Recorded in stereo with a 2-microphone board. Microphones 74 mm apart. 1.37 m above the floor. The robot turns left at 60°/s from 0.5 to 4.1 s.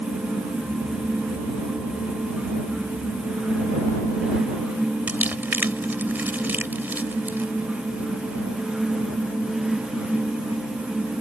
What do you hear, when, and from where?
5.1 s crumpling: 25° right (ahead or behind)